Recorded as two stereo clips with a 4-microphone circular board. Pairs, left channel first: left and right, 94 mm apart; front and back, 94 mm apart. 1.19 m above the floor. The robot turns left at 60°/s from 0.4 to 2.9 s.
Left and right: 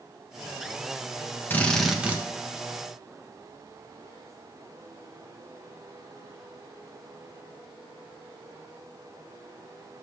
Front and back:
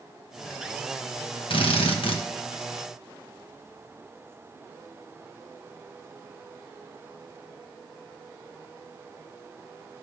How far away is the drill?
About 1.2 m.